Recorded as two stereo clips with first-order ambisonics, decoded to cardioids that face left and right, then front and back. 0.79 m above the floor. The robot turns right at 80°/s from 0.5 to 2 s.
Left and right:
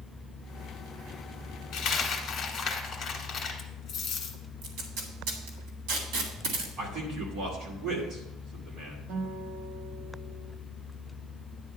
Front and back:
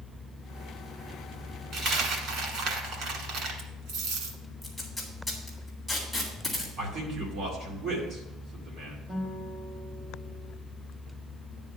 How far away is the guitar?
About 1.3 m.